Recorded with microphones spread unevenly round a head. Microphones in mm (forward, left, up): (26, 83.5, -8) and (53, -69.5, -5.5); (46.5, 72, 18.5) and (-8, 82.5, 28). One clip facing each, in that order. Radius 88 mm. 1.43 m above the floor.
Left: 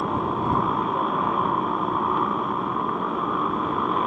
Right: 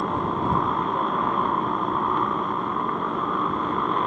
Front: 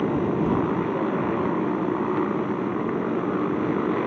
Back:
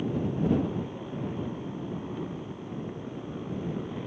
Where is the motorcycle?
10° left.